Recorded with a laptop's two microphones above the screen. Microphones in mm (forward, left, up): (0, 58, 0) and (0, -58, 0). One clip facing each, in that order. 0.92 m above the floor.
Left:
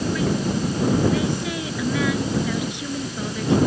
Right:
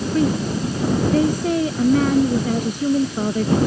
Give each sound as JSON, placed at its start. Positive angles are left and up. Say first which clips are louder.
{"t": 0.1, "sound": "a woman speaking", "louder": "right 3 dB", "side_deg": -40}